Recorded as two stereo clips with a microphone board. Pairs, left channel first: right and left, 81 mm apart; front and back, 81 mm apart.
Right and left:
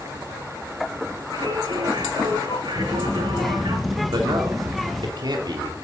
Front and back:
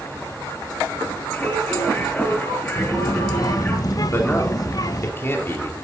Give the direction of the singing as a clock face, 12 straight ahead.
10 o'clock.